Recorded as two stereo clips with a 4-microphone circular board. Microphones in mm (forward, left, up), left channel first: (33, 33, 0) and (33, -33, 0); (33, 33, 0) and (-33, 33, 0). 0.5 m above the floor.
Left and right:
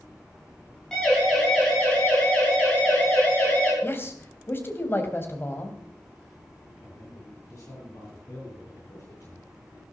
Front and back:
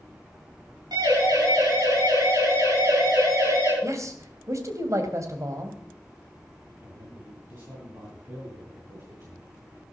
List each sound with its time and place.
0.9 s a siren: 170° left, 8.5 m; by 3.7 s 155° left, 10 m
3.8 s a man speaking: 145° left, 3 m
6.8 s a man speaking: 140° left, 7 m